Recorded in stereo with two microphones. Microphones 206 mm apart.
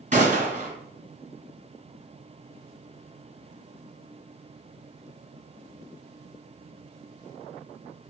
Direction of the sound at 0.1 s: 40° right (ahead or behind).